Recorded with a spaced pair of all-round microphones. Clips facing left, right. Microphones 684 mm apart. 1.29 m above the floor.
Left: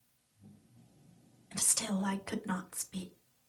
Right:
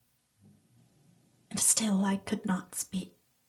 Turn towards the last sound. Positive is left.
turn(degrees=-65)  # may be behind; listen again after turning